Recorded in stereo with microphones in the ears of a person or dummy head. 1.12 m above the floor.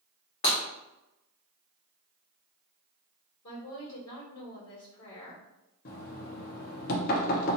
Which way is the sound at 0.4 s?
35° left (ahead or behind).